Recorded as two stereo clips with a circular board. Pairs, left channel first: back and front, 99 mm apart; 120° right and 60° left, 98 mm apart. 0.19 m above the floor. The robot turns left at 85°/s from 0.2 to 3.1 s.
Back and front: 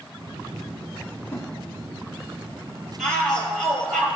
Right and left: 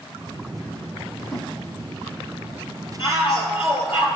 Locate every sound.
1.3 s a snare drum: 140° left, 1.0 m; by 1.5 s 125° left, 1.0 m
3.0 s a shout: 90° right, 4 m; by 4.1 s 100° right, 4 m